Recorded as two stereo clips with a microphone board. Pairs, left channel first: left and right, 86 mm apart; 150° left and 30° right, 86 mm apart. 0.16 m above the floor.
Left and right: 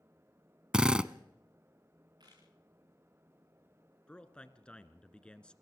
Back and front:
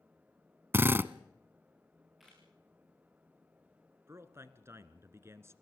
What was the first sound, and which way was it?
A drill, 25° right.